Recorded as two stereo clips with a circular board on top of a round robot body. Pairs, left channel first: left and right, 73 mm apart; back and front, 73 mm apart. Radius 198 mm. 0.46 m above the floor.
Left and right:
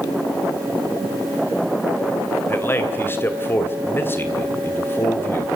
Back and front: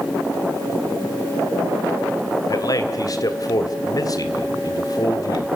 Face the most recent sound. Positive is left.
turn(degrees=150)